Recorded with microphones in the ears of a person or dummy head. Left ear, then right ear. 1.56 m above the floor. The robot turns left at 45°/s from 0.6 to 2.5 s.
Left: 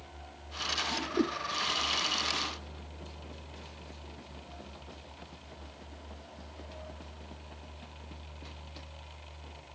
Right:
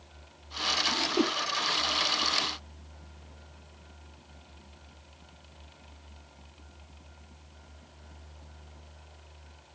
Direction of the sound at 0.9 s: 40° right (ahead or behind).